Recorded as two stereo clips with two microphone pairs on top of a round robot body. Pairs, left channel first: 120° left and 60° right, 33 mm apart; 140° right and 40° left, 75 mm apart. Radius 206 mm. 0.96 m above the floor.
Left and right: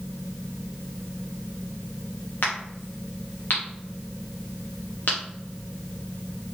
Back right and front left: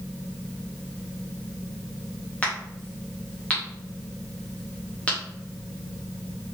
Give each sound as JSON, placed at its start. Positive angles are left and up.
{"t": 2.4, "sound": "a crack", "azimuth_deg": 145, "distance_m": 0.5}